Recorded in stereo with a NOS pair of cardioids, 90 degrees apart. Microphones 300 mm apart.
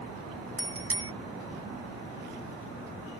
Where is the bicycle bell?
50° right.